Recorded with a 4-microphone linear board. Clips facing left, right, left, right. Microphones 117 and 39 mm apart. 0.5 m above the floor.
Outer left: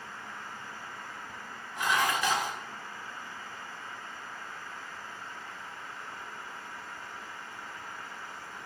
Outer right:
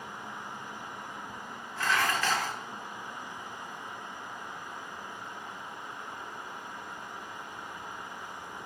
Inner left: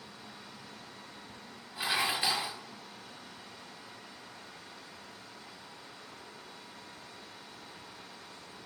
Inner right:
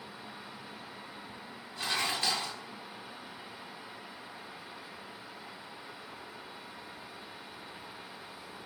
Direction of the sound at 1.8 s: 15° left (ahead or behind).